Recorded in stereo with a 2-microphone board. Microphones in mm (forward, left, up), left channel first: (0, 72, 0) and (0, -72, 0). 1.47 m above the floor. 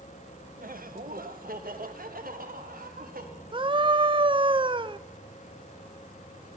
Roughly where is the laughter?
Right.